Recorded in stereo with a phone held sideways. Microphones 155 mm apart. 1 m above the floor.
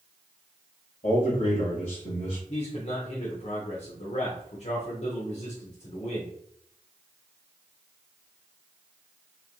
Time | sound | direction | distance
1.0 | a man speaking | 60° left (ahead or behind) | 1.3 m
2.5 | a man speaking | 50° left (ahead or behind) | 0.7 m